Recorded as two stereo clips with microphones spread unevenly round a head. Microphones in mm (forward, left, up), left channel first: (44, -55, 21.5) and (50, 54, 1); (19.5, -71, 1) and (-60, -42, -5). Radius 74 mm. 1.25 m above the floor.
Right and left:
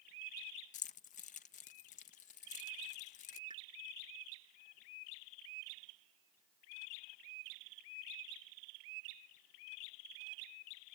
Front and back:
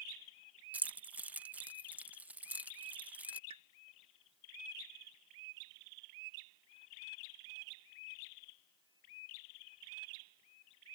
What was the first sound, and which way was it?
Keys jangling, 125° right.